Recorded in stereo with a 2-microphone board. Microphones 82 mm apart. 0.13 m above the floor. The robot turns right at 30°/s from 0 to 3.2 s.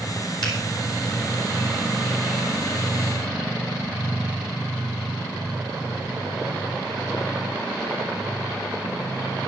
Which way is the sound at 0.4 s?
55° left (ahead or behind).